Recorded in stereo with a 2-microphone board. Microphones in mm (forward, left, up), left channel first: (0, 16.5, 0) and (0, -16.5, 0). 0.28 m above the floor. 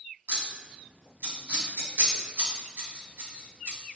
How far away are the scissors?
About 1.5 m.